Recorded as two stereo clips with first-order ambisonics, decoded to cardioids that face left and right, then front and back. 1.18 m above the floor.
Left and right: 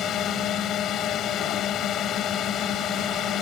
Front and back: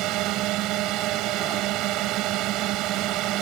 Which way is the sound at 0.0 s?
145° left.